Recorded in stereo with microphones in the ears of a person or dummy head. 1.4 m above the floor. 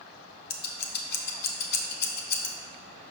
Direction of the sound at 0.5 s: 55° left (ahead or behind).